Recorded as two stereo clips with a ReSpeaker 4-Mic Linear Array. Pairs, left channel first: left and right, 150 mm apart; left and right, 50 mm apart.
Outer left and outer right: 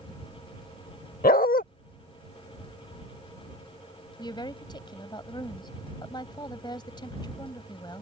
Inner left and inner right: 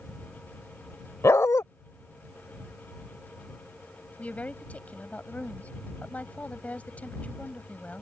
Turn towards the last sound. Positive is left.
turn(degrees=30)  # may be behind; listen again after turning